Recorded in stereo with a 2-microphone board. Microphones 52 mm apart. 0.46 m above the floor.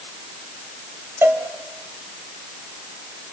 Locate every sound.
1.2 s a cowbell: 40° right (ahead or behind), 2.5 m